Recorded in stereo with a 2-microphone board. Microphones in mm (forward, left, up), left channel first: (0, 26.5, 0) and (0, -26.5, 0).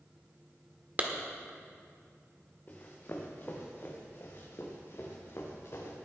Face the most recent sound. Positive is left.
turn(degrees=60)  # may be behind; listen again after turning